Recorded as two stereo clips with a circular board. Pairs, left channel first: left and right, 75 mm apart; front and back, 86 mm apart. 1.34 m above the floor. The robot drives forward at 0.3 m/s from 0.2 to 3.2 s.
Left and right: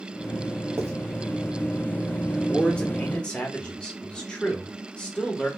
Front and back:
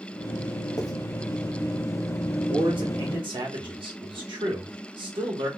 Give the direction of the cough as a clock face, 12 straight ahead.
I don't hear a cough.